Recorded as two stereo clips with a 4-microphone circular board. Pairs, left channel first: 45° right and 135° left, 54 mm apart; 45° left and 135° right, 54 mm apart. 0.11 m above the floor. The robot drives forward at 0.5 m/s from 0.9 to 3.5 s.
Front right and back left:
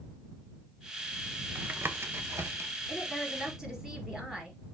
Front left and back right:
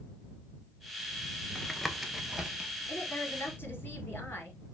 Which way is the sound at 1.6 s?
115° left.